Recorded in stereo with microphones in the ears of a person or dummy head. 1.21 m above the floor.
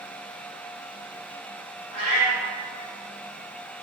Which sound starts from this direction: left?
A cat meowing, at 1.9 s.